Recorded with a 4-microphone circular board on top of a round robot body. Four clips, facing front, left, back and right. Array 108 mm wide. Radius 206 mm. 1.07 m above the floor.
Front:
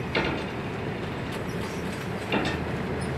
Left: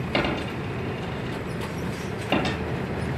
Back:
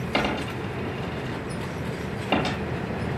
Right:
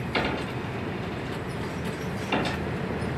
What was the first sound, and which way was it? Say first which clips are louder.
A dropped coin: left 2 dB, back 2 dB; 135° left.